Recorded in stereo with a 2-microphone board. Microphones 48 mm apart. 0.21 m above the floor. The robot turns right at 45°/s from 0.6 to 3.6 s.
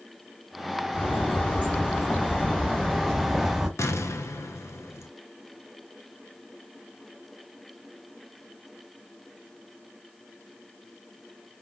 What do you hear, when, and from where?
0.9 s a bird: 75° left, 1.6 m; by 3.7 s 165° right, 1.6 m
3.8 s an explosion: 75° left (ahead or behind), 0.7 m